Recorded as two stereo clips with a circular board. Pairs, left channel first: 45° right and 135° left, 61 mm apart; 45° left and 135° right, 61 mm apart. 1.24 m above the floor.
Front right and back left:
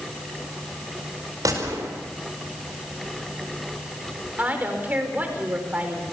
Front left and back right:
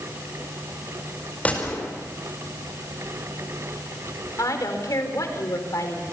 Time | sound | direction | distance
1.4 | a gunshot | 110° left | 5 m
4.4 | a woman speaking | 70° left | 4 m